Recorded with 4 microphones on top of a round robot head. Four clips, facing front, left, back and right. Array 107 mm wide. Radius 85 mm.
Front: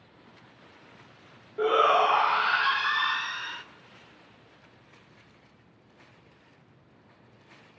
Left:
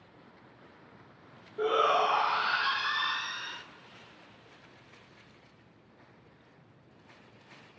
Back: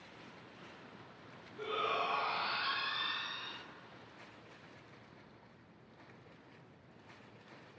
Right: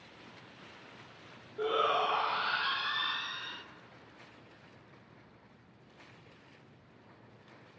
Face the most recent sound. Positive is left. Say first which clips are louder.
# left 4 dB, front 15 dB
turn(degrees=10)